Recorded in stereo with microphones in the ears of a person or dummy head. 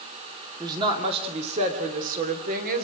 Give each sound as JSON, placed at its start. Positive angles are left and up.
{"t": 0.6, "sound": "a woman speaking", "side_deg": -25, "distance_m": 2.0}